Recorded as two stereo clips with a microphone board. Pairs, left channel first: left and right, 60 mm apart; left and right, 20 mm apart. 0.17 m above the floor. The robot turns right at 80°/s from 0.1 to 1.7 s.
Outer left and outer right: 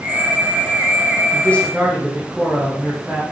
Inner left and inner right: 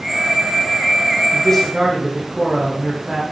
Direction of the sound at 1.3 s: 145° left.